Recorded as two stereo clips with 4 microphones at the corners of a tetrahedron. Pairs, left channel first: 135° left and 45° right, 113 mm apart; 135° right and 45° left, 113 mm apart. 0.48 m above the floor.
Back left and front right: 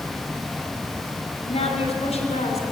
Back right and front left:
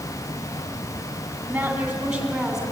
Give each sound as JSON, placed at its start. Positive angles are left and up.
{"t": 1.5, "sound": "a woman speaking", "azimuth_deg": 120, "distance_m": 3.5}